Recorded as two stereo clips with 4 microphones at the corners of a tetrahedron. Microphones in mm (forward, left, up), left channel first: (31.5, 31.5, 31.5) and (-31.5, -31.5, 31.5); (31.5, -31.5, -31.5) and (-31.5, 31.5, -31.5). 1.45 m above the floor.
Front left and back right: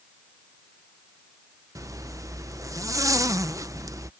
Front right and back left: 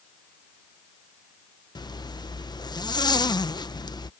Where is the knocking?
I don't hear knocking.